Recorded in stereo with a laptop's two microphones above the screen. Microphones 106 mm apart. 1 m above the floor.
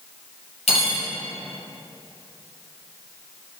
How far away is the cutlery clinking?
About 0.6 m.